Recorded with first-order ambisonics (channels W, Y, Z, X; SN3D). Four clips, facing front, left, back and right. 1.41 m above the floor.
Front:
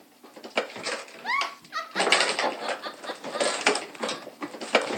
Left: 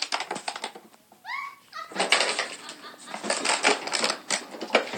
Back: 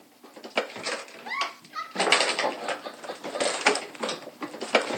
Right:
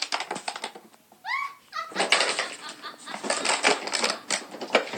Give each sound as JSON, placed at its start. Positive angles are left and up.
{"t": 1.2, "sound": "a giggle", "azimuth_deg": -15, "distance_m": 2.0}